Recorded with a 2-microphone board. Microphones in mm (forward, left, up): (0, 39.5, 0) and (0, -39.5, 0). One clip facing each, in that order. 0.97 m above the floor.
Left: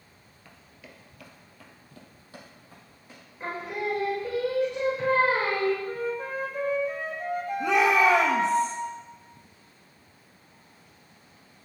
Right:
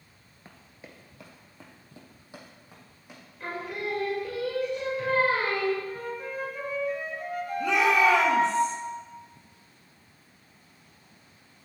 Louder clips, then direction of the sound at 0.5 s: Right 2 dB; 35° right (ahead or behind).